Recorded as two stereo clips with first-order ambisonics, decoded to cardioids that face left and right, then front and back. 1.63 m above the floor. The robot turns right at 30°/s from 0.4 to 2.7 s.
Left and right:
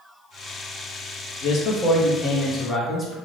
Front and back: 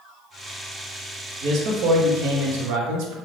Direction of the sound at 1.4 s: 135° left.